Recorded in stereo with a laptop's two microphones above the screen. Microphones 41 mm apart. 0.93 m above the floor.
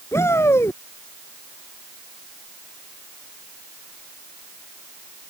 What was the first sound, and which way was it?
A shout, 85° left.